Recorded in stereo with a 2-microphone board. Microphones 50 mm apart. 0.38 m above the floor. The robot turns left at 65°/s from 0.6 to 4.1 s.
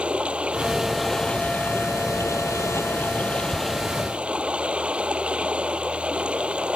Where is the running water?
155° right; by 6.8 s 20° right.